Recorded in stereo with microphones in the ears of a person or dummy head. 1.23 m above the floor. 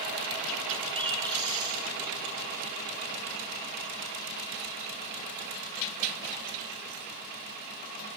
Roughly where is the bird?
Centre.